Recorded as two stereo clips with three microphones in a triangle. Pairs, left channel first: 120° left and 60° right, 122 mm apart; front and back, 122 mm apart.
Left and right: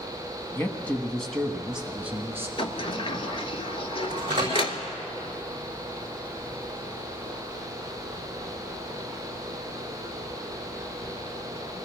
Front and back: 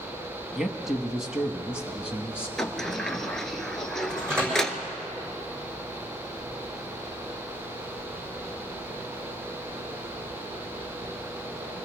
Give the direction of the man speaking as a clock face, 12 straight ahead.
9 o'clock.